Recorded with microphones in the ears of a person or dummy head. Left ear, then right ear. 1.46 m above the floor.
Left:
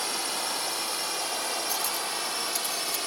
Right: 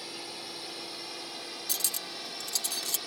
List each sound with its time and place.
0.0 s a drone: 45° left (ahead or behind); by 3.1 s 40° left (ahead or behind)
1.7 s cutlery clinking: 5° right (ahead or behind)